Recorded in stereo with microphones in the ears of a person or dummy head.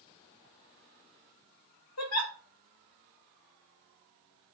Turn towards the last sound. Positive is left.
turn(degrees=80)